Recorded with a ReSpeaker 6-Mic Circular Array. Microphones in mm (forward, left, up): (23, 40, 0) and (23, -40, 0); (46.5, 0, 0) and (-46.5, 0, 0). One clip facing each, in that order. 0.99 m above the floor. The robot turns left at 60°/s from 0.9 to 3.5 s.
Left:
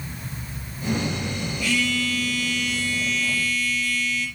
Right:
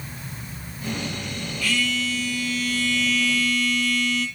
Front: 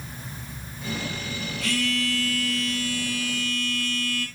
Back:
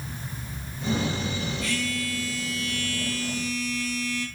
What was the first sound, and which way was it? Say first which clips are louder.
A phone buzzing: left 1 dB, front 3 dB; 25° left.